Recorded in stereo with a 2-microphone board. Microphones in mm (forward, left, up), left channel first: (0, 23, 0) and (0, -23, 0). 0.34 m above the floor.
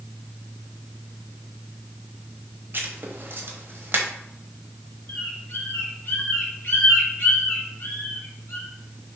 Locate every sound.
2.7 s writing: 55° right (ahead or behind), 0.8 m
5.1 s a bird: 55° left (ahead or behind), 1.3 m